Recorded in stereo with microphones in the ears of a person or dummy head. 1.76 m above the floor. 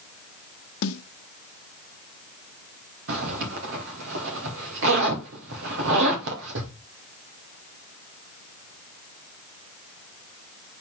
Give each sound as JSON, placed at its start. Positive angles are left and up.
{"t": 0.8, "sound": "a snare drum", "side_deg": 80, "distance_m": 1.0}
{"t": 3.1, "sound": "a zipper", "side_deg": -70, "distance_m": 2.5}